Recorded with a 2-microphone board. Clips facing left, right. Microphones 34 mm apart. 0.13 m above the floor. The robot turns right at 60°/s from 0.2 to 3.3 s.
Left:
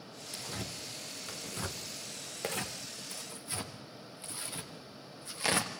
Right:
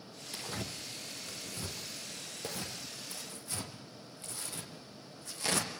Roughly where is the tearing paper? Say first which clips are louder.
Right 1 dB; right.